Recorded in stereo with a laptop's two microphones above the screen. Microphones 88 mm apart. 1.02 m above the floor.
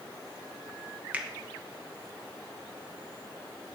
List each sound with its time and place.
1.1 s a finger snap: 15° right (ahead or behind), 0.8 m